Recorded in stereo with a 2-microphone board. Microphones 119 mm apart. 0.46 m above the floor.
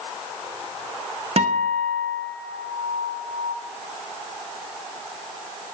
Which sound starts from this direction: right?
A guitar, at 1.4 s.